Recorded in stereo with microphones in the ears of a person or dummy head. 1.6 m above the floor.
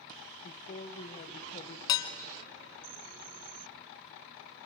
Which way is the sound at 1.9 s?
20° left (ahead or behind).